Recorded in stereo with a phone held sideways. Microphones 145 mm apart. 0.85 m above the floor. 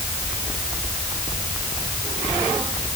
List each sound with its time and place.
Only background noise.